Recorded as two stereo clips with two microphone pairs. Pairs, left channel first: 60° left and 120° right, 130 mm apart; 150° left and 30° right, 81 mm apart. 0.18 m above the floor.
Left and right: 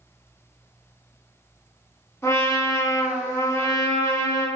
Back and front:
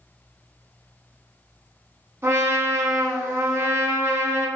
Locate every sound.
2.2 s a trumpet: 5° left, 0.8 m